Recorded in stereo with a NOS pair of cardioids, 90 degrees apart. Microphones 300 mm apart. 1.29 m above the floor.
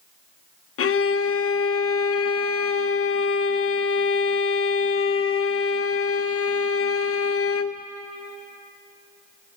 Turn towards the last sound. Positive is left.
turn(degrees=45)